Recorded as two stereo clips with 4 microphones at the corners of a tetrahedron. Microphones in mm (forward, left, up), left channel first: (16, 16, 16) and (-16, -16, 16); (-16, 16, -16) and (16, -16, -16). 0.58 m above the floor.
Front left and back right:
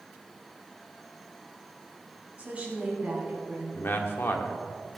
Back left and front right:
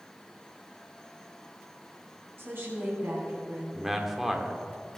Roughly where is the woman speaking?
Right.